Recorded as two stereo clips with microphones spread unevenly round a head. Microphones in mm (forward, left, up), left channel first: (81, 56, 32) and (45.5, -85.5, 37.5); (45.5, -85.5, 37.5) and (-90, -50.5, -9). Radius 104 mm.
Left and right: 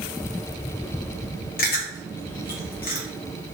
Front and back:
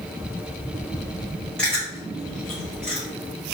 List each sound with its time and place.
1.6 s chewing: 80° left, 0.7 m